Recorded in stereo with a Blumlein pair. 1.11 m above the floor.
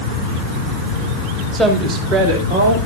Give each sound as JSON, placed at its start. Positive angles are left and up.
{"t": 1.5, "sound": "a woman speaking", "azimuth_deg": -20, "distance_m": 2.0}